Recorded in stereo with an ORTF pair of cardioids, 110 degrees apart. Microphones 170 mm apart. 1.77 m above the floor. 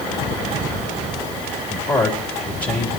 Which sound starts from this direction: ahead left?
A man speaking, at 1.7 s.